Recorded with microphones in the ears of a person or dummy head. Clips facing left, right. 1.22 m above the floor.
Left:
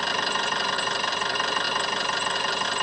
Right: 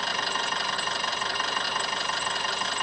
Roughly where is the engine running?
Left.